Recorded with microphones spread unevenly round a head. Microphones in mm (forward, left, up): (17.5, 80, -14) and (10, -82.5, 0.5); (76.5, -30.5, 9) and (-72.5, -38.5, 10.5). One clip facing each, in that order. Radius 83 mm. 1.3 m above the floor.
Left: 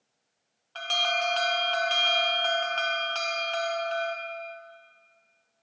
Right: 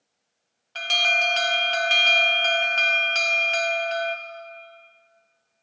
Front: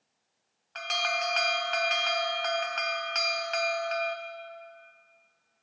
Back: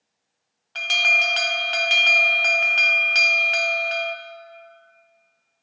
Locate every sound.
0.8 s an alarm: 155° right, 0.7 m